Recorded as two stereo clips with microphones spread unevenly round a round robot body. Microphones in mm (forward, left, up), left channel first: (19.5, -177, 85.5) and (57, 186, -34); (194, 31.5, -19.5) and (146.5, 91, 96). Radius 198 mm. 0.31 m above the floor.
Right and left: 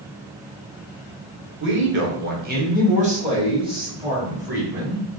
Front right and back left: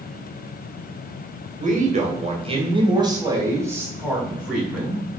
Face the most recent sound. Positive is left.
turn(degrees=5)